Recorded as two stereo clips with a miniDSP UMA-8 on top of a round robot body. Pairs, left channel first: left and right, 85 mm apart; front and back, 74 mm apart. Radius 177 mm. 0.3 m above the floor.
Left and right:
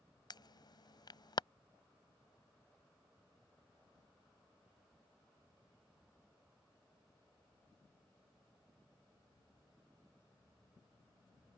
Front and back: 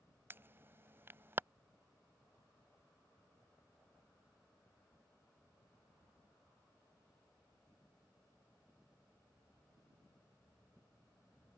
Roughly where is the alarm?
Behind left.